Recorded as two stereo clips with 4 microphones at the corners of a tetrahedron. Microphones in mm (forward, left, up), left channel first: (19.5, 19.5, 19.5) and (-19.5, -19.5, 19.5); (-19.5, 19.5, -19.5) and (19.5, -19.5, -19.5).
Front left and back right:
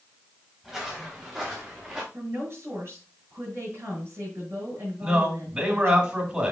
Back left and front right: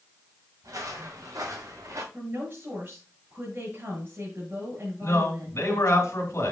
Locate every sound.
0.6 s footsteps: 55° right, 5 m; by 2.0 s 60° right, 4 m
2.1 s a woman speaking: 100° right, 5.5 m
5.0 s a man speaking: 165° left, 3 m